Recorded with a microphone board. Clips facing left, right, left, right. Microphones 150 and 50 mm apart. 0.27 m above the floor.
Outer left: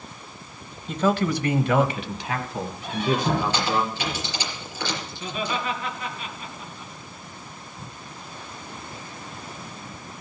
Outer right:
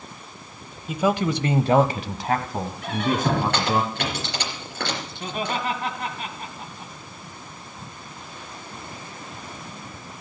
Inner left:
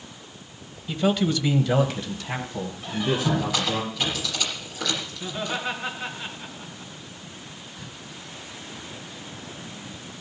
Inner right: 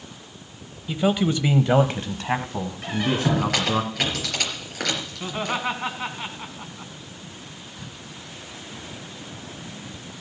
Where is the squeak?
70° right (ahead or behind), 4 m.